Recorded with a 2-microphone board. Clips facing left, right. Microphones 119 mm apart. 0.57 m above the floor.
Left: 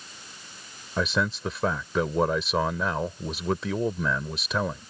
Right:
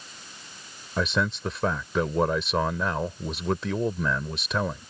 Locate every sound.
1.0 s a man speaking: centre (ahead or behind)